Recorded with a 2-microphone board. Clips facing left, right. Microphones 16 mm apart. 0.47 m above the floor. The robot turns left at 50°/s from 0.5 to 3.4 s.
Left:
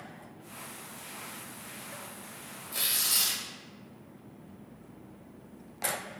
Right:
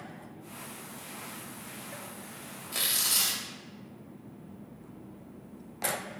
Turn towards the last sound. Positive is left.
turn(degrees=-175)